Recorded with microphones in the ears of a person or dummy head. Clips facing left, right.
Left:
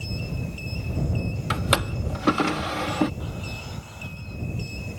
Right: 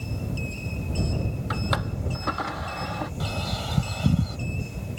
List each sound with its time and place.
1.5 s a drawer: 50° left (ahead or behind)
3.2 s a bird: 80° right